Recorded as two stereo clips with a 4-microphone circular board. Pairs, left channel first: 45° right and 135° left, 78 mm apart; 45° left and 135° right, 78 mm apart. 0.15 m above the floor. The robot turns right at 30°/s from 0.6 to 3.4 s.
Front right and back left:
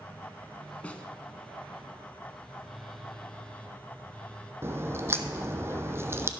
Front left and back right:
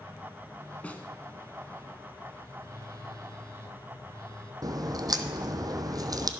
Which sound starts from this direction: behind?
A crack, at 4.6 s.